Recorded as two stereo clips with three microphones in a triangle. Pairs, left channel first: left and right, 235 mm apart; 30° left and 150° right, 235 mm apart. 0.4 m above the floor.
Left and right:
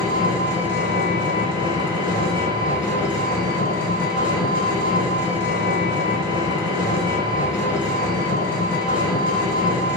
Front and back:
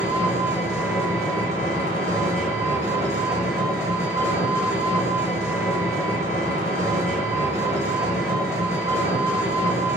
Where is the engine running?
135° left, 1.2 m.